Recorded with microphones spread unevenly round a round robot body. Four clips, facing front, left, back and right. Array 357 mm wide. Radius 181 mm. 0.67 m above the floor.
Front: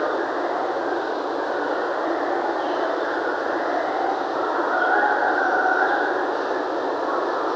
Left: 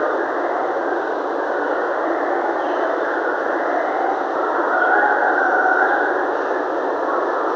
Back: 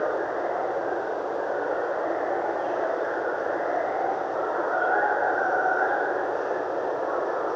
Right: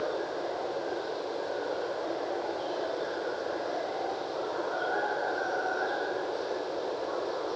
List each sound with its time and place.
0.0 s running water: 60° left